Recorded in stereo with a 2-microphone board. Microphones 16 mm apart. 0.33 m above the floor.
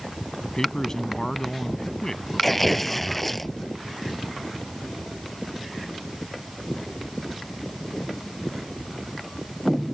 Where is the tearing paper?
5° left (ahead or behind).